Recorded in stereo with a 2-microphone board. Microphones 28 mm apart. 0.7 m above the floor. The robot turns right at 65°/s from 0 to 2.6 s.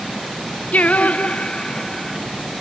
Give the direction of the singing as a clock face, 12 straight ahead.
9 o'clock.